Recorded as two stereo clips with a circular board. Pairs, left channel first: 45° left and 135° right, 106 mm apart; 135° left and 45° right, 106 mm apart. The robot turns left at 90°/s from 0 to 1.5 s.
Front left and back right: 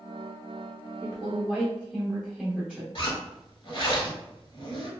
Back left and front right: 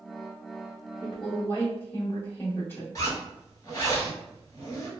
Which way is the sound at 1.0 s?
160° right.